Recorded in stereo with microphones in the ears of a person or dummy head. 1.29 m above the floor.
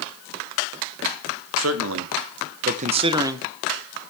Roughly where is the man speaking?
Right.